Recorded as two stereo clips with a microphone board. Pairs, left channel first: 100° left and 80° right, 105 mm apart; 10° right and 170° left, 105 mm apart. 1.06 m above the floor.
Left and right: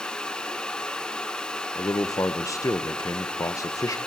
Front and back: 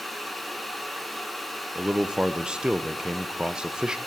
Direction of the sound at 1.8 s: 95° left.